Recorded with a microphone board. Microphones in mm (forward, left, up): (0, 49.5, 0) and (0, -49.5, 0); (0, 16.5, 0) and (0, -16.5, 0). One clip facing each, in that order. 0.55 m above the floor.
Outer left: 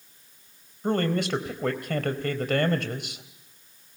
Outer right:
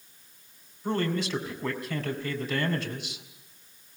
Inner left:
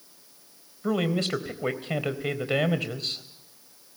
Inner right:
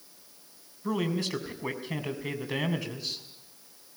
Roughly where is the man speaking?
Left.